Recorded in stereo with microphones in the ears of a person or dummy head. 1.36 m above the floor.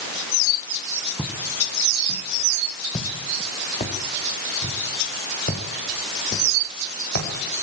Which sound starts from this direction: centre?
Footsteps, at 1.2 s.